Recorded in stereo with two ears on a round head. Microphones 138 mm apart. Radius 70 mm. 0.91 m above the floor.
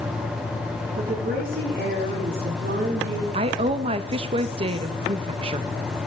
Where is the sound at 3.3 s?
35° right (ahead or behind), 0.7 m.